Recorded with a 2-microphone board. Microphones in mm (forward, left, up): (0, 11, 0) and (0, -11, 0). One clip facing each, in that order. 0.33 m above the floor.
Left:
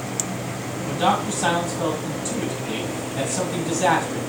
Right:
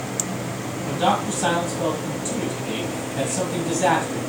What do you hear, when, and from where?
0.8 s a man speaking: 15° right (ahead or behind), 1.8 m